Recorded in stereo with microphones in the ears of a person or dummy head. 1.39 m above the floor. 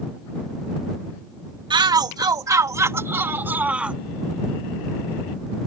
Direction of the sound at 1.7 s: 25° right (ahead or behind).